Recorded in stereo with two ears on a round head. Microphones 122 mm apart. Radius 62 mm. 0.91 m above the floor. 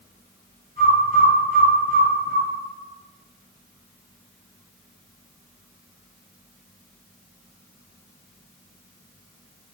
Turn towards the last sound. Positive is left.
turn(degrees=-60)  # may be behind; listen again after turning